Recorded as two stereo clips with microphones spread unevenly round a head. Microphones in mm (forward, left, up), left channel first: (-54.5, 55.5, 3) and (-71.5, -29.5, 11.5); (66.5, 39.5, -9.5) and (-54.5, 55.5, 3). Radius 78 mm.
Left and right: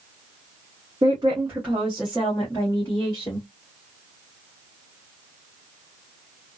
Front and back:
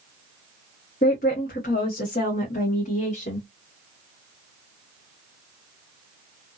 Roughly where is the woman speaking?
Ahead right.